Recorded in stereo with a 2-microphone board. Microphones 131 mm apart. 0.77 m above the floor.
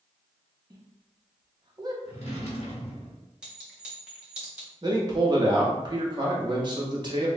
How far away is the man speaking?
About 1.2 m.